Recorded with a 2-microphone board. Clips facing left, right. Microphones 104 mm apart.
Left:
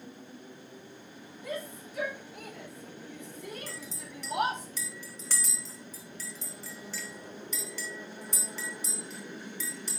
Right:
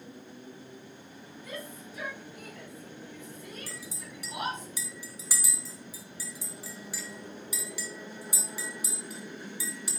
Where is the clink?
10° right (ahead or behind), 2.0 m.